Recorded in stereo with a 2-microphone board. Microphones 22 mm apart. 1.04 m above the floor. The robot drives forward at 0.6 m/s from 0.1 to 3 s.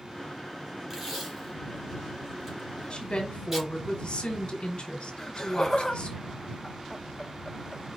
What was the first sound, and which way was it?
Tape being pulled, 10° right (ahead or behind).